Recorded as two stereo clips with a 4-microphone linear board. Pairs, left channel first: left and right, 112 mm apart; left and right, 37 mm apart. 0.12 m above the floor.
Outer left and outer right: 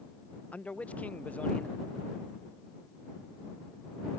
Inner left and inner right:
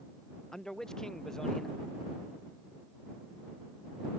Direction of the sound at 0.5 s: 10° left (ahead or behind).